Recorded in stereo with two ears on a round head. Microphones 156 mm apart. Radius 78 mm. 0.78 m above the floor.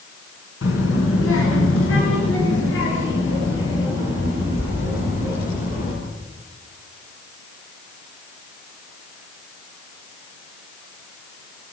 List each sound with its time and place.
0.6 s a child speaking: 85° left, 4.5 m; by 5.9 s 80° left, 13 m